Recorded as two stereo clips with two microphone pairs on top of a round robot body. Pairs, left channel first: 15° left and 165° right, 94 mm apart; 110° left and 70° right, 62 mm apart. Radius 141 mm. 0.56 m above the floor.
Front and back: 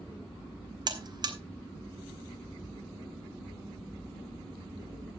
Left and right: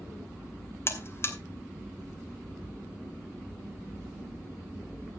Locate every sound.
0.9 s a buzzer: 160° left, 1.8 m